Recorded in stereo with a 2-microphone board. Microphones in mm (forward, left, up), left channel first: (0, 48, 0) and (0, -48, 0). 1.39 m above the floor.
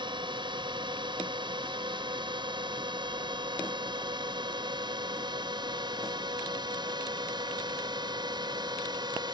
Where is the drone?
55° right (ahead or behind); by 9.3 s 50° right (ahead or behind).